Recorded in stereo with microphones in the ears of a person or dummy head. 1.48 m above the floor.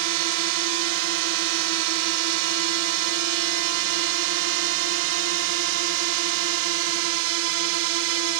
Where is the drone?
65° right (ahead or behind).